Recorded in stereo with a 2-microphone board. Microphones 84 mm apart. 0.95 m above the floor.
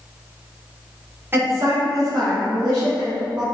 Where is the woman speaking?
25° right (ahead or behind), 1.1 m; by 3.4 s 20° right (ahead or behind), 2.5 m.